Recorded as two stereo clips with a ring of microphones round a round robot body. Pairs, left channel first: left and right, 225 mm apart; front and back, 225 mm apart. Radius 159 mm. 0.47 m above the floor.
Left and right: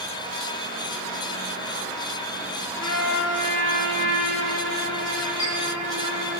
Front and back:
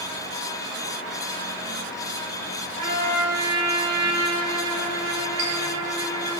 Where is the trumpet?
165° left, 2 m.